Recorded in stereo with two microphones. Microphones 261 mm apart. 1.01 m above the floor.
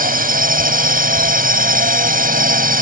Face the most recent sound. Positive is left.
turn(degrees=-35)  # may be behind; listen again after turning